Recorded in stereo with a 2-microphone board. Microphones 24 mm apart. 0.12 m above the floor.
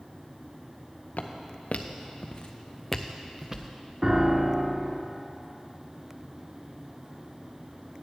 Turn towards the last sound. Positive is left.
turn(degrees=-30)  # may be behind; listen again after turning